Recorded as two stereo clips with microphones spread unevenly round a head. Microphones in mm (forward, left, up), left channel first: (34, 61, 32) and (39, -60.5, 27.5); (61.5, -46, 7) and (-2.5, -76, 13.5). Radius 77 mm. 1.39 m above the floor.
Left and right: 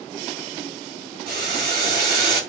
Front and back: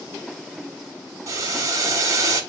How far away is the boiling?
About 5 m.